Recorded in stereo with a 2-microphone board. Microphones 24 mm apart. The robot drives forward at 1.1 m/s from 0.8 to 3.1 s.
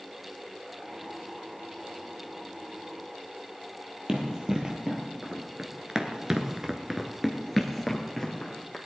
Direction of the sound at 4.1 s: 25° right (ahead or behind).